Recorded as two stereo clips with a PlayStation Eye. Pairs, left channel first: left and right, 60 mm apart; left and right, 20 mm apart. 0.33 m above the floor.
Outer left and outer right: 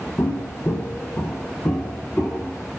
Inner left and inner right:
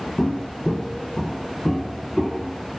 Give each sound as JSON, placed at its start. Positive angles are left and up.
{"t": 0.2, "sound": "footsteps", "side_deg": 45, "distance_m": 0.5}